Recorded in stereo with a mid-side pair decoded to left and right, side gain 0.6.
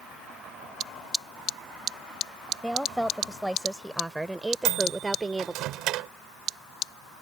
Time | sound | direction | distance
2.6 | a woman speaking | straight ahead | ?
4.7 | a microwave | 65° right | ?